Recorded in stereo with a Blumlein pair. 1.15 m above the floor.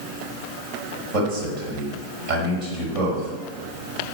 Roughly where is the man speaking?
Ahead right.